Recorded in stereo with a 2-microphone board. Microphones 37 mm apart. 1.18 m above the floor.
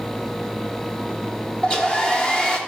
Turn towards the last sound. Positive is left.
turn(degrees=25)  # may be behind; listen again after turning